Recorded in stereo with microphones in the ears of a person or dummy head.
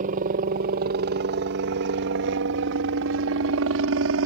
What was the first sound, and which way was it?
A helicopter, 40° right (ahead or behind).